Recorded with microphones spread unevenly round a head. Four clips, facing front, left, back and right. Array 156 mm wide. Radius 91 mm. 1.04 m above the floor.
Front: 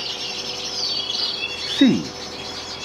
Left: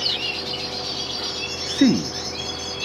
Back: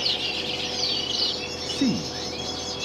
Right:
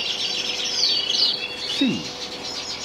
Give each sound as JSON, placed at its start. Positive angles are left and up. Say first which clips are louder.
{"t": 1.7, "sound": "a man speaking", "louder": "left 6 dB, front 9 dB", "azimuth_deg": 20}